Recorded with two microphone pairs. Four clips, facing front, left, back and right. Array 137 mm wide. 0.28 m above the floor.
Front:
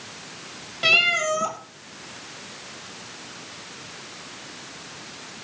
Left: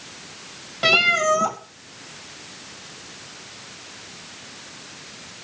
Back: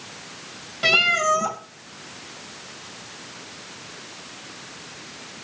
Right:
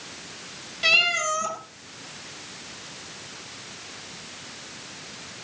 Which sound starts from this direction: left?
A cat meowing, at 0.8 s.